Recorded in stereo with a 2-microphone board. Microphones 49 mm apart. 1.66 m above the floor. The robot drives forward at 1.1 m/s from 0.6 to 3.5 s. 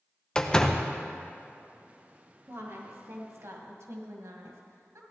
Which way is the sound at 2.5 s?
65° right (ahead or behind).